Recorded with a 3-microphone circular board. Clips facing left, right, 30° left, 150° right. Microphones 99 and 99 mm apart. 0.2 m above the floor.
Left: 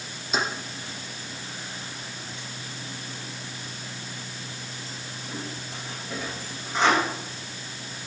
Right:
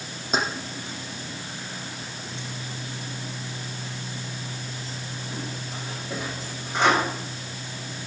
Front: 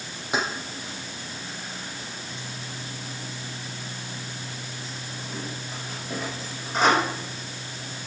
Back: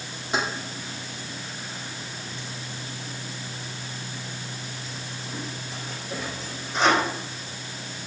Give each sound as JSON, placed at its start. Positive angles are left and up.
{"t": 0.3, "sound": "keys jangling", "azimuth_deg": -40, "distance_m": 6.0}